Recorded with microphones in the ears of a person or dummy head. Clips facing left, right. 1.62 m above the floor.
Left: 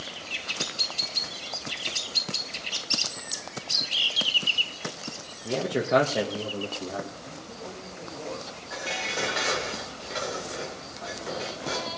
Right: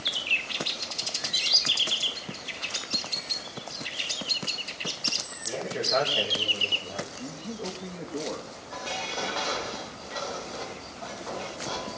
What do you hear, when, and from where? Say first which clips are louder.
5.4 s a man speaking: left 5 dB; 55° left (ahead or behind), 2.5 m
7.2 s a man speaking: right 5 dB; 55° right (ahead or behind), 3 m
8.7 s dishes clattering: left 1 dB; 25° left (ahead or behind), 3 m